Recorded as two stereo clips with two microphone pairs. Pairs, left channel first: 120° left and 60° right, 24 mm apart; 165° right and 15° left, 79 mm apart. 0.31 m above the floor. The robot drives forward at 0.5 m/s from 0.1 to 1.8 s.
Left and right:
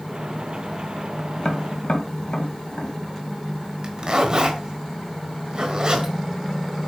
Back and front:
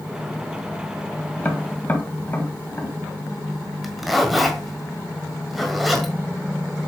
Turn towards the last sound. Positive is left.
turn(degrees=-80)